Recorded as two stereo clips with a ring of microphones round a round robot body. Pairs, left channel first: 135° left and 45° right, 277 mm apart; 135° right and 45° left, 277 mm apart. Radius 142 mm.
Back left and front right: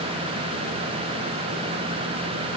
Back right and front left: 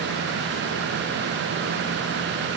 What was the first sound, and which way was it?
Only background noise.